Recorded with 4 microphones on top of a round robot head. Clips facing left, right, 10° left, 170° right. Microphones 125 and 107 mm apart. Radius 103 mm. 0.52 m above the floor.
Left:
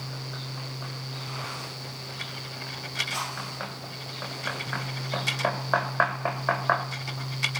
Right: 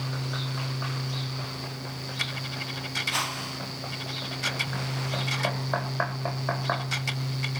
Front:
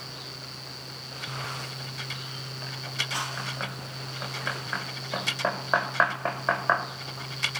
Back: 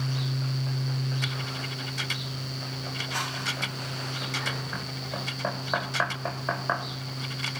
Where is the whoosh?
65° right, 2 m.